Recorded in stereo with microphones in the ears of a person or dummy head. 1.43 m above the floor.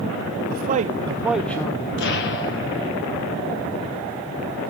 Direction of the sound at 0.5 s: 50° right (ahead or behind).